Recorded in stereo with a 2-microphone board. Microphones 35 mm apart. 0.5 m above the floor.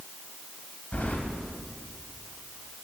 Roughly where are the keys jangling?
Left.